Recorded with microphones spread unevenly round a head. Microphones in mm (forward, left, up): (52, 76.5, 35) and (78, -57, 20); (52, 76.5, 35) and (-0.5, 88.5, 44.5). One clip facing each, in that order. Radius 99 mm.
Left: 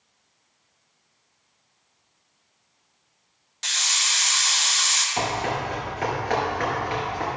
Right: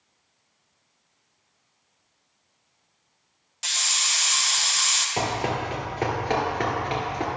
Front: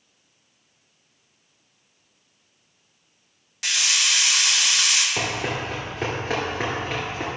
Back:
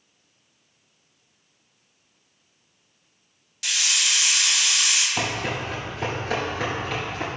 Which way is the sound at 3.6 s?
10° left.